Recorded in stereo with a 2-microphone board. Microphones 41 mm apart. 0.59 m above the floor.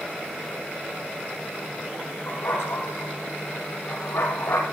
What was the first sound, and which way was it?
A dog barking, 75° left (ahead or behind).